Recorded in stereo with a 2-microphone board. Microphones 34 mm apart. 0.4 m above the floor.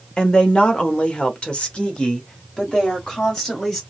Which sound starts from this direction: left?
A woman speaking, at 0.2 s.